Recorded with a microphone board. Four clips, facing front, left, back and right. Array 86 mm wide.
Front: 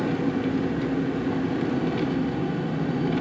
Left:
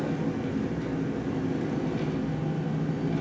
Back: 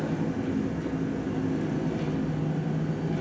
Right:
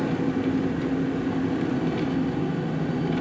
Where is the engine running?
35° right, 0.9 m.